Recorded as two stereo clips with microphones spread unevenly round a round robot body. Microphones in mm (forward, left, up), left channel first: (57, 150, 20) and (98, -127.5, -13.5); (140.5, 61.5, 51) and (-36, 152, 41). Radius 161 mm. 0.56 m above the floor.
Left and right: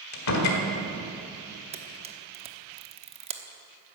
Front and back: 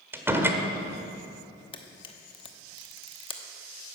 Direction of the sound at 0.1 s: 75° left.